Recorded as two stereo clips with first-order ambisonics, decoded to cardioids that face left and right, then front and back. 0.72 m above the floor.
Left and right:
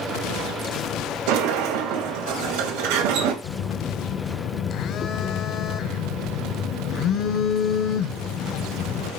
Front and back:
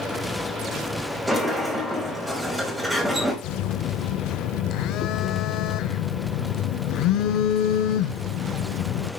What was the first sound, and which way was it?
A sliding door, 100° right.